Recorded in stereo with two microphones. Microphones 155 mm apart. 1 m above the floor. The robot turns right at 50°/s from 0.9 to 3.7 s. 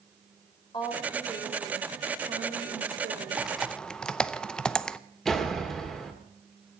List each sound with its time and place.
0.7 s a woman speaking: 145° left, 4 m; by 3.4 s 90° right, 4 m
3.4 s typing on a keyboard: 5° right (ahead or behind), 0.5 m; by 5.0 s 5° left (ahead or behind), 0.5 m
5.2 s a door slam: 5° left (ahead or behind), 2 m